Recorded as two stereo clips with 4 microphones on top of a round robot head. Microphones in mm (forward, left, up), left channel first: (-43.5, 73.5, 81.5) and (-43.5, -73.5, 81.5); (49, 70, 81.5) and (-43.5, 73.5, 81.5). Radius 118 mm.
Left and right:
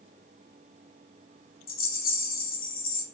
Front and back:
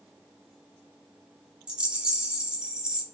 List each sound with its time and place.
1.7 s a rattle: 95° left, 0.7 m